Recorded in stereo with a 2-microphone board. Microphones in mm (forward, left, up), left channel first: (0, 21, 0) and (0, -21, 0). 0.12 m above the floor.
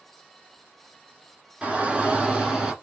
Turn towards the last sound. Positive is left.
turn(degrees=-15)  # may be behind; listen again after turning